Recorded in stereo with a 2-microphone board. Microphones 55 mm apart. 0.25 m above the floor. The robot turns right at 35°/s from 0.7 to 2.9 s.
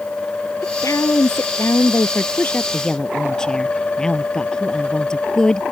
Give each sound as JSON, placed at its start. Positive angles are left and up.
{"t": 0.6, "sound": "a woman speaking", "azimuth_deg": 90}